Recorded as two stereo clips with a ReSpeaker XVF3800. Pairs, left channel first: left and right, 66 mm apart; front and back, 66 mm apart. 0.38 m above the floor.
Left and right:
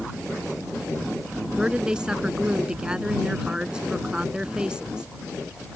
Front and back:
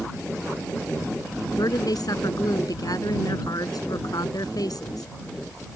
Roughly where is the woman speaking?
Ahead.